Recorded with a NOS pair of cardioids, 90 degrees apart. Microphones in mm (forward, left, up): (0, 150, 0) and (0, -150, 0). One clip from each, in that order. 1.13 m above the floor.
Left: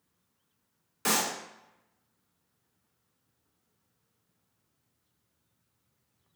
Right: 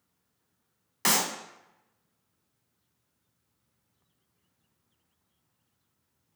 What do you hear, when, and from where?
1.1 s a clap: 50° right, 0.9 m